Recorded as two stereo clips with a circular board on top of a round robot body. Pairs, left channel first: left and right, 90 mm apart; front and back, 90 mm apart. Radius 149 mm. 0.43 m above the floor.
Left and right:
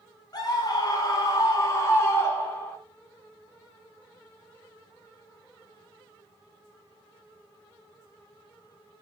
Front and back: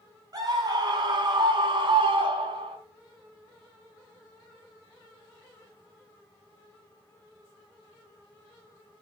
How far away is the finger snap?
I don't hear a finger snap.